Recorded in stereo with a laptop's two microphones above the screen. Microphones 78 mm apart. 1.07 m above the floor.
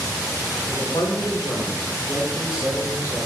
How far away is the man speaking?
About 1.1 m.